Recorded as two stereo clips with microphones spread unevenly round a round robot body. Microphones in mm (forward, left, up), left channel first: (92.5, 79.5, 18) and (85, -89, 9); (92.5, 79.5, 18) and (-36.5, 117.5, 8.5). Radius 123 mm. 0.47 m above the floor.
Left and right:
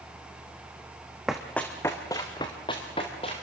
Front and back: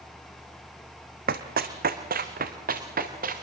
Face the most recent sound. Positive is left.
turn(degrees=155)